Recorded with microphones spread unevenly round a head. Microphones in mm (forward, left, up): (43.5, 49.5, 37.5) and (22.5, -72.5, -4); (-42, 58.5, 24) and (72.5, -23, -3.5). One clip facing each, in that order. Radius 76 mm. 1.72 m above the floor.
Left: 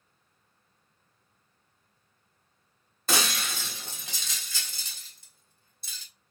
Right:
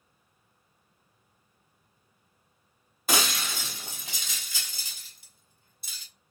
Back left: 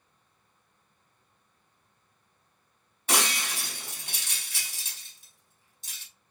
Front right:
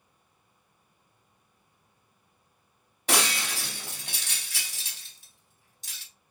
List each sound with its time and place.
3.1 s breaking glass: 10° right, 3 m